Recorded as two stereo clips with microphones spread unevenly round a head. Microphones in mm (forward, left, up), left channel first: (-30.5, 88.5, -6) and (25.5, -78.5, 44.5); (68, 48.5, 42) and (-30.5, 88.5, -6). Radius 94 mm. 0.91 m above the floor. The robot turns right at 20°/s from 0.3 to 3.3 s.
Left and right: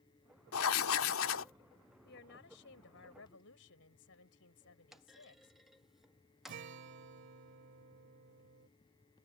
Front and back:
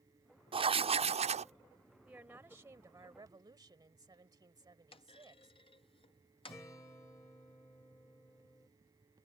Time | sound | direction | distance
0.5 | writing | 110° left | ?
2.0 | a woman speaking | 80° left | ?
4.9 | a clunk | 25° left | ?
6.5 | a guitar | 100° right | ?